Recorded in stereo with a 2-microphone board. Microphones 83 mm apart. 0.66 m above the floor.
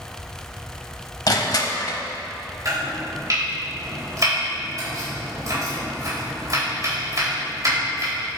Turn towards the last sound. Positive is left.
turn(degrees=-45)  # may be behind; listen again after turning